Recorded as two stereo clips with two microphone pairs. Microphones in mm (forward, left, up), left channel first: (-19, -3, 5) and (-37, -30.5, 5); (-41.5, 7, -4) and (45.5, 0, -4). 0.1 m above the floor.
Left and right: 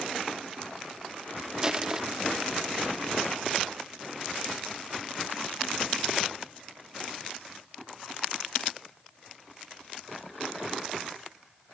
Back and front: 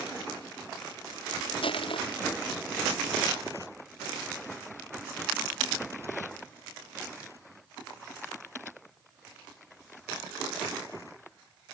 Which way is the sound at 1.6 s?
170° left.